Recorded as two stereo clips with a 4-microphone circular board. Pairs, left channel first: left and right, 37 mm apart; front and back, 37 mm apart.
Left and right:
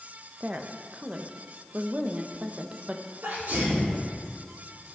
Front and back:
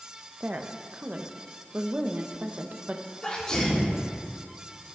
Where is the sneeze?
70° right, 3 m.